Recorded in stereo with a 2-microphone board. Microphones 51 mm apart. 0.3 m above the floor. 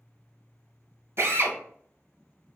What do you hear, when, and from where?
1.2 s a drill: 55° right (ahead or behind), 0.8 m